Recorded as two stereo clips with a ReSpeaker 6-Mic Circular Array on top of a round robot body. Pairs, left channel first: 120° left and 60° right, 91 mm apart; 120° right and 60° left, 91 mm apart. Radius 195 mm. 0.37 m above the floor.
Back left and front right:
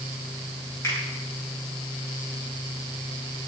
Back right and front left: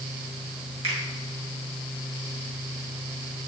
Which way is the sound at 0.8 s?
60° left.